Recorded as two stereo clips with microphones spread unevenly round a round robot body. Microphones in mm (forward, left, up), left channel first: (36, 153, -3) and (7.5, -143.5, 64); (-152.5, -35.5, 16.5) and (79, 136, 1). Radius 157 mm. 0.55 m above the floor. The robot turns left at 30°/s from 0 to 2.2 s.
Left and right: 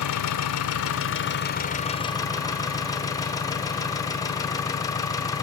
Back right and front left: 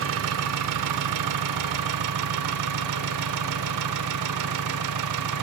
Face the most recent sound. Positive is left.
turn(degrees=10)